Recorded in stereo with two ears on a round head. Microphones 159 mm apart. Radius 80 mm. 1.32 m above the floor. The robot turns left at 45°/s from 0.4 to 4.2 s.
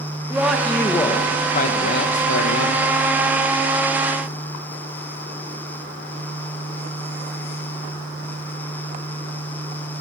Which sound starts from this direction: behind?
A man speaking, at 0.3 s.